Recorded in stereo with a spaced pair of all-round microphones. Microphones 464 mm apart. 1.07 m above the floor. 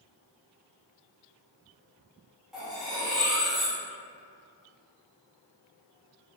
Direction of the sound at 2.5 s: Centre (ahead or behind).